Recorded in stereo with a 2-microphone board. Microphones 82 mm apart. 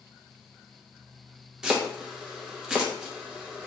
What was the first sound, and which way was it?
Chopping, 10° right (ahead or behind).